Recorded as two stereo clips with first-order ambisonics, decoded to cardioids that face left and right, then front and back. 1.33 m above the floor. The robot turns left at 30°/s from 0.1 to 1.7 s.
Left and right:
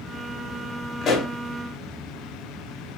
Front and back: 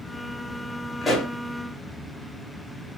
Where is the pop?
60° left, 1.2 m; by 1.3 s 50° left, 1.2 m.